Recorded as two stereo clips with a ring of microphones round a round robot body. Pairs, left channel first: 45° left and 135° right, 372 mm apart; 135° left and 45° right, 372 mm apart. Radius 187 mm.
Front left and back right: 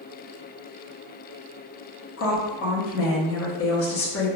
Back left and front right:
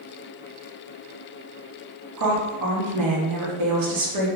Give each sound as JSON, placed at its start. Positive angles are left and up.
{"t": 2.2, "sound": "a woman speaking", "azimuth_deg": -5, "distance_m": 0.9}